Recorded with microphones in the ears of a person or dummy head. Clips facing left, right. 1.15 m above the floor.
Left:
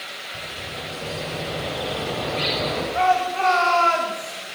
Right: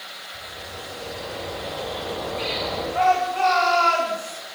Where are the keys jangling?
I don't hear keys jangling.